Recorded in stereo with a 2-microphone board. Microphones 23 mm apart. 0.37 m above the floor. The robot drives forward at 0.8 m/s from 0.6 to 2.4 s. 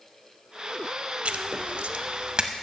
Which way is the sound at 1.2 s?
55° right (ahead or behind).